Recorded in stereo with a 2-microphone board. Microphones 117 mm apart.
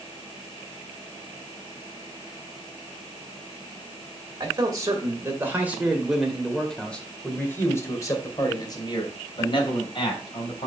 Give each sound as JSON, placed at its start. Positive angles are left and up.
{"t": 4.4, "sound": "a man speaking", "side_deg": -35, "distance_m": 2.0}